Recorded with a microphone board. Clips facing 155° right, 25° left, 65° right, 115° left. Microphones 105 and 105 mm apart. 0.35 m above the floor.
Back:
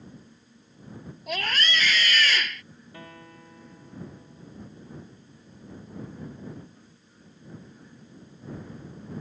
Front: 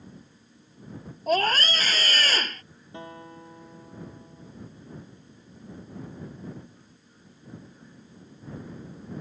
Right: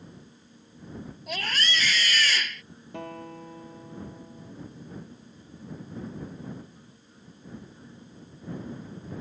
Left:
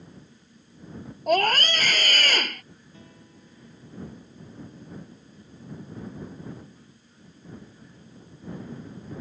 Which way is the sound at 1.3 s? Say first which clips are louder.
Front 6 dB, left 11 dB; 75° left.